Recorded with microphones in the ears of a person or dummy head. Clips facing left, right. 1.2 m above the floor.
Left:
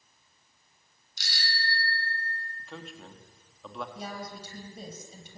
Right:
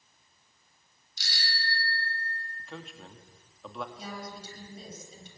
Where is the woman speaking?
45° left (ahead or behind), 7.5 m.